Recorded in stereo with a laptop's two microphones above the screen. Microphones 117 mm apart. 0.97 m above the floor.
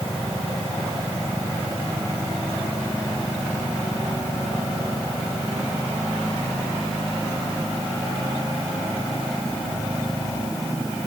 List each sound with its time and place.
Only background noise.